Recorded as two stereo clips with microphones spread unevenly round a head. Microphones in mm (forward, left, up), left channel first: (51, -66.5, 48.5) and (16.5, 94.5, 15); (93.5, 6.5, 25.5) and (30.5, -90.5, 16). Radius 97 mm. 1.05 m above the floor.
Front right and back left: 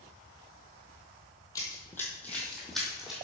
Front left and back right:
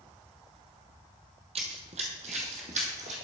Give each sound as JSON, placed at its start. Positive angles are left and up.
{"t": 1.6, "sound": "running footsteps", "azimuth_deg": -130, "distance_m": 1.4}